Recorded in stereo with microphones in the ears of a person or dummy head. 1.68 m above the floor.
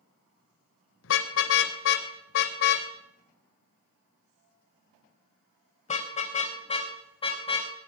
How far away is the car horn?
About 3 m.